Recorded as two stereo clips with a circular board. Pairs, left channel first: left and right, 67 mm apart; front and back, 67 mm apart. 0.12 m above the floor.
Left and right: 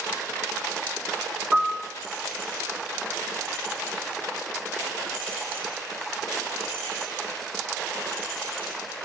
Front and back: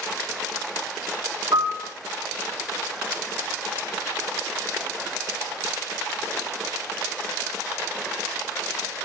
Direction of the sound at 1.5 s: Straight behind.